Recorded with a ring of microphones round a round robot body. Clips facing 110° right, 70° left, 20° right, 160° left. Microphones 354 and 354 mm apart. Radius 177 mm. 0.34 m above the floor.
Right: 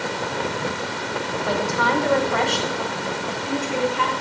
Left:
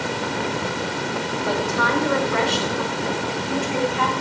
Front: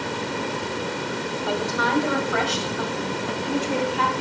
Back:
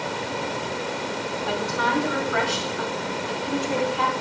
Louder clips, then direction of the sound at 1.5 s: Even, front 2 dB; 20° right.